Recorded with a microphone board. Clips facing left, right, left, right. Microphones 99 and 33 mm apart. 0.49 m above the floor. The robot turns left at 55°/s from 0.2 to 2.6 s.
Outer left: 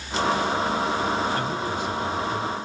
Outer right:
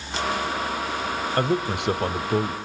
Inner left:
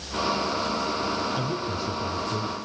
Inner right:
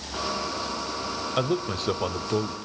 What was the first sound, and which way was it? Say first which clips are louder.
A man speaking: outer right 3 dB, inner right 2 dB; 60° right.